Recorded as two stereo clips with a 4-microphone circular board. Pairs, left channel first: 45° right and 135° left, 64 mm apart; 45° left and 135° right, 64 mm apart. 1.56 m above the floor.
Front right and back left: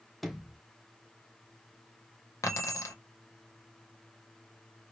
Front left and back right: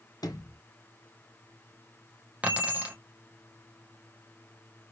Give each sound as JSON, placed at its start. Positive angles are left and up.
{"t": 0.2, "sound": "a sliding door", "azimuth_deg": 45, "distance_m": 0.7}
{"t": 2.4, "sound": "keys jangling", "azimuth_deg": -70, "distance_m": 0.9}